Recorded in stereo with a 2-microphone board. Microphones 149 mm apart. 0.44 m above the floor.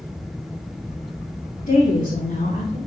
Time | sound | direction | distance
1.7 | a woman speaking | 60° left (ahead or behind) | 4.5 m